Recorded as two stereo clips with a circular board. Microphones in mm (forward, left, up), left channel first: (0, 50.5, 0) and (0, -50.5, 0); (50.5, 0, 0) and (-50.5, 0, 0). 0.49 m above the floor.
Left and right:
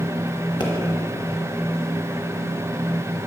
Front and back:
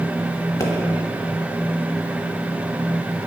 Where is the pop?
50° left, 1.3 m.